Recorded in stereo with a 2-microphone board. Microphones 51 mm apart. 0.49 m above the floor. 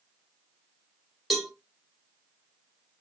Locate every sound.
1.3 s a cowbell: centre (ahead or behind), 1.2 m